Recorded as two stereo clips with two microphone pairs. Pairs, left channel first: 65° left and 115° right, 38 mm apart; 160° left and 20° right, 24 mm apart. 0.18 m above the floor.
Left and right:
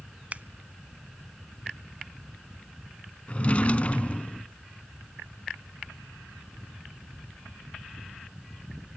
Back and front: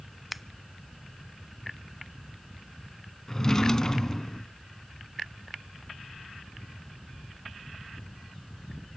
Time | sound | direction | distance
0.3 | scissors | 100° right | 0.5 m
3.3 | a drawer | 105° left | 0.6 m